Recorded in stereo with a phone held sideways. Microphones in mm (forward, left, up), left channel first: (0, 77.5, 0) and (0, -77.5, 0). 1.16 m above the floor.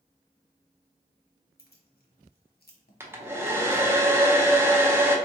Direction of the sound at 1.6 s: 85° left.